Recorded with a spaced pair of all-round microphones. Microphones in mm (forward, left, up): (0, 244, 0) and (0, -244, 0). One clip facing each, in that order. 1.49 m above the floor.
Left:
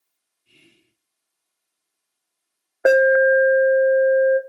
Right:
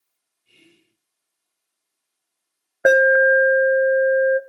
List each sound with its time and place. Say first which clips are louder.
0.5 s whispering: right 2 dB; 35° left (ahead or behind), 3 m
2.9 s an alarm: left 1 dB; 35° right (ahead or behind), 0.9 m